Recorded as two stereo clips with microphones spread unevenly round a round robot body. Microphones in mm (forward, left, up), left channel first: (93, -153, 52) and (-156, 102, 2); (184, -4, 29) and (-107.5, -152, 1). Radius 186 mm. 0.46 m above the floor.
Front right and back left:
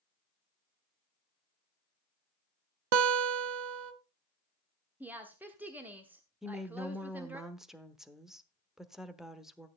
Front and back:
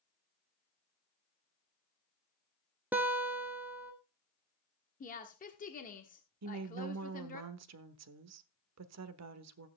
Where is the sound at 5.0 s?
70° left, 1.1 m.